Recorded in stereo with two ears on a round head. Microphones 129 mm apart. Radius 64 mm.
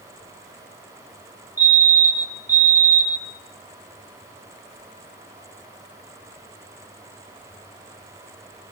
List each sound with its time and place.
1.6 s a fire alarm: 15° right (ahead or behind), 7 m